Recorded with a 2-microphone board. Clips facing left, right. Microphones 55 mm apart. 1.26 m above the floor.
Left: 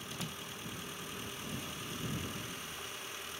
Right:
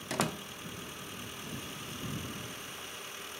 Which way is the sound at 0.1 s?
85° right.